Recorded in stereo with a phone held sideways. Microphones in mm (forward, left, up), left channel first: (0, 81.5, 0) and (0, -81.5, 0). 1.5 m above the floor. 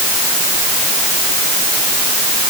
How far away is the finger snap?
I don't hear a finger snap.